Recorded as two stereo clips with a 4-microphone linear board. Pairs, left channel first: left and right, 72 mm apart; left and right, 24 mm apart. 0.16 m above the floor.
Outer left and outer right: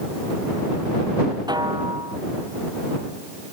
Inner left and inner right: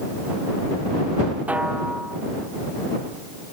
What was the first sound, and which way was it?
A snare drum, 80° right.